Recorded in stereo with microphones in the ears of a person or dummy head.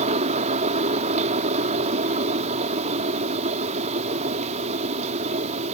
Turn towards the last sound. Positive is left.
turn(degrees=-30)  # may be behind; listen again after turning